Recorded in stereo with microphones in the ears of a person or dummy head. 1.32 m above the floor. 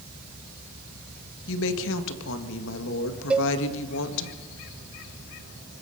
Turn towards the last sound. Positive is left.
turn(degrees=-5)  # may be behind; listen again after turning